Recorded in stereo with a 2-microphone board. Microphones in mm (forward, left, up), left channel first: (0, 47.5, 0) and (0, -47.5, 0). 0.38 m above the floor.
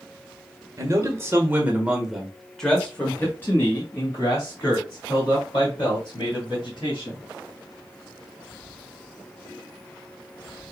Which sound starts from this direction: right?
A man speaking, at 0.8 s.